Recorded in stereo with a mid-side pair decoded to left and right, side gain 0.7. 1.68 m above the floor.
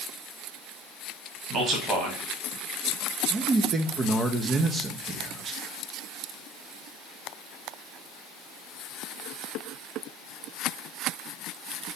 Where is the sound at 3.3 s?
30° right, 0.5 m.